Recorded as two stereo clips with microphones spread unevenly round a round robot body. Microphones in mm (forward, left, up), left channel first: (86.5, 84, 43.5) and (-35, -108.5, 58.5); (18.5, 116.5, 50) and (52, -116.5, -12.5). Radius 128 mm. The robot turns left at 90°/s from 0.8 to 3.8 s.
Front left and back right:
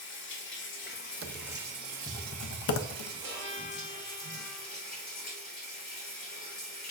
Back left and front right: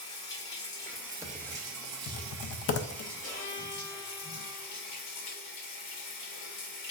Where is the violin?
155° left, 1.7 m; by 4.7 s 100° left, 1.7 m.